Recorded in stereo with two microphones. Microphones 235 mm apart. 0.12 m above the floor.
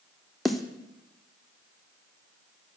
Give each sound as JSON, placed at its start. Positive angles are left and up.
{"t": 0.5, "sound": "a snare drum", "side_deg": 0, "distance_m": 0.9}